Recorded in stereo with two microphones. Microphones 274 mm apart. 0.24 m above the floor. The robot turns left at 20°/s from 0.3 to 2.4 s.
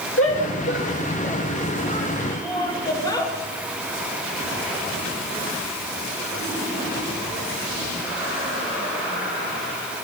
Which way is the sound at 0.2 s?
50° left (ahead or behind).